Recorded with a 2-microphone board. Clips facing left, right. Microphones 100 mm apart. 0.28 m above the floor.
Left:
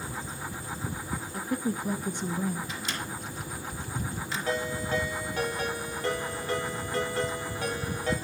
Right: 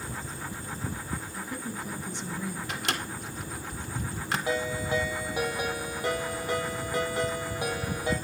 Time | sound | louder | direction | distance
1.3 | a woman speaking | left 6 dB | 55° left (ahead or behind) | 3 m
2.7 | a microwave | right 2 dB | 70° right (ahead or behind) | 2.5 m
4.5 | a ringtone | even | 15° right (ahead or behind) | 5.5 m